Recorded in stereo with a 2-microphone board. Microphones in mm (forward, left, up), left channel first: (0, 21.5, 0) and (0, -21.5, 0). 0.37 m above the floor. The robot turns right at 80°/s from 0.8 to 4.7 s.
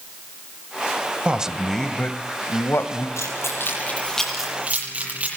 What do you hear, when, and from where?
1.2 s a man speaking: 30° right, 1.7 m; by 3.1 s 115° left, 1.7 m
3.2 s keys jangling: 85° left, 8 m; by 5.3 s 30° right (ahead or behind), 8 m